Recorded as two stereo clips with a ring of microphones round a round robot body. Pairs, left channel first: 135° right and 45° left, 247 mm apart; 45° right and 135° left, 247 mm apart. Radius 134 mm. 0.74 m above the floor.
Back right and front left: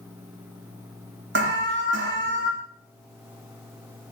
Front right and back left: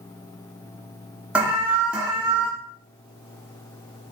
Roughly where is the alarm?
Ahead left.